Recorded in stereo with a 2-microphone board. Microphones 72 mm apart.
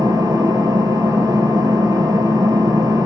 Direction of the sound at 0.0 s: 70° right (ahead or behind).